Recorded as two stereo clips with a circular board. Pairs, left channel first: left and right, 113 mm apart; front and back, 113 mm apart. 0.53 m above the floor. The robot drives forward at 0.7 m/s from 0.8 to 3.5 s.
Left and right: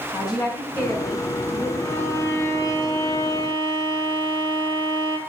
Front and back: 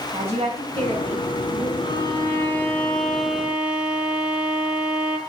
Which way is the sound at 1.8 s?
30° left.